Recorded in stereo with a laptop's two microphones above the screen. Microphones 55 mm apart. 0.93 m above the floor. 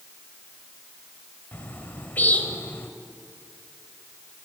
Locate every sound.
1.5 s a bird: 35° left (ahead or behind), 2 m